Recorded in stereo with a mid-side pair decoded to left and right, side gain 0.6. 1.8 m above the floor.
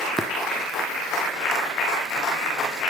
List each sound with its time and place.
0.2 s tapping: 20° right, 0.8 m